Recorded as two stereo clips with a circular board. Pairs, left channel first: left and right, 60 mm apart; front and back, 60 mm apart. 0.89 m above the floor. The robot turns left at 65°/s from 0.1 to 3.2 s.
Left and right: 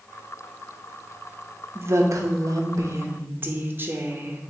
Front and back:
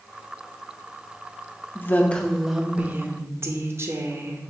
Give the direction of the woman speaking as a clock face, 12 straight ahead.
2 o'clock.